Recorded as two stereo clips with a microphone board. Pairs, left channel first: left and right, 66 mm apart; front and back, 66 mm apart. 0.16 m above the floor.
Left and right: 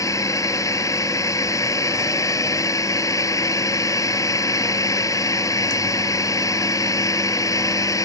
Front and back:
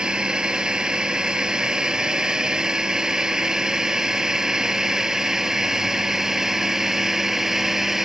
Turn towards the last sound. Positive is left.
turn(degrees=95)